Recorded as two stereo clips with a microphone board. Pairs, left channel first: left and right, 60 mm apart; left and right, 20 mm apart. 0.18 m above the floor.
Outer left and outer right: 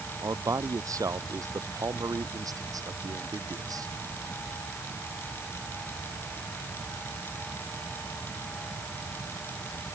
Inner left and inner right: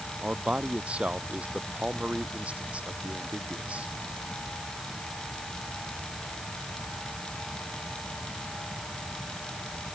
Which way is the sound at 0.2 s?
60° right (ahead or behind).